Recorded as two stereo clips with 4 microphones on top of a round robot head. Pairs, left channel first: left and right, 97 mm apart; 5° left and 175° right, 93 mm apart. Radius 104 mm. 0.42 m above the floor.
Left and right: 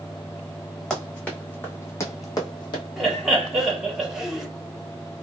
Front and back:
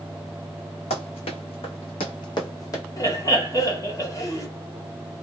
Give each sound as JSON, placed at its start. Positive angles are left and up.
{"t": 0.9, "sound": "running footsteps", "azimuth_deg": 10, "distance_m": 1.3}
{"t": 3.0, "sound": "laughter", "azimuth_deg": -10, "distance_m": 1.3}